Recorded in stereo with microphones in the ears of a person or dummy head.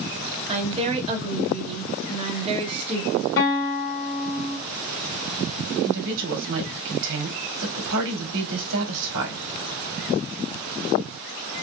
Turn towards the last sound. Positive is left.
turn(degrees=-70)  # may be behind; listen again after turning